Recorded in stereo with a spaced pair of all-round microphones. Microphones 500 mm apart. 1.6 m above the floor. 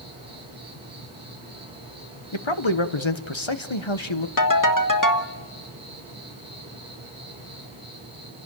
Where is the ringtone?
40° left (ahead or behind), 1.5 m.